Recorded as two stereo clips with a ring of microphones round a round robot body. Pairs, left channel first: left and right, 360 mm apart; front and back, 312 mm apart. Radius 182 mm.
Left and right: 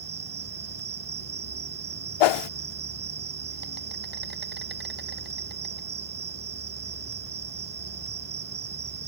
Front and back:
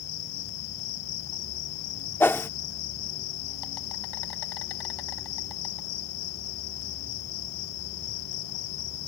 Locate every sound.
0.0 s an insect: 25° right
2.2 s a whoosh: 85° left